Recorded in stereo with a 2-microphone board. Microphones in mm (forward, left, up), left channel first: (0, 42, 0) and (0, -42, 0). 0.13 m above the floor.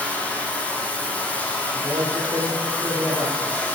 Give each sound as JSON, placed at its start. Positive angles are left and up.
{"t": 0.0, "sound": "running water", "side_deg": 20, "distance_m": 5.5}
{"t": 1.7, "sound": "a man speaking", "side_deg": -45, "distance_m": 6.5}